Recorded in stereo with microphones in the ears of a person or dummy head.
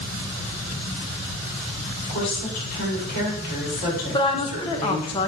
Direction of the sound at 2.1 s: 50° left (ahead or behind).